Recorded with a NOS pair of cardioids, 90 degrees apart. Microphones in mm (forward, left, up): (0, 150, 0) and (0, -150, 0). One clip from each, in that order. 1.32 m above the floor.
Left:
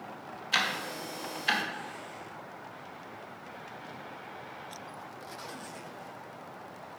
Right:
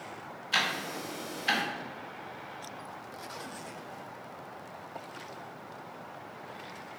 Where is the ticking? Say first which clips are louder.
Even; 10° left, 2 m.